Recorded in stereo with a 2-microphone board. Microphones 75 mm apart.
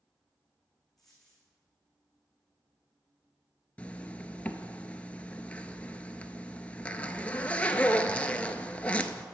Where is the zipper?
20° left (ahead or behind), 0.6 m.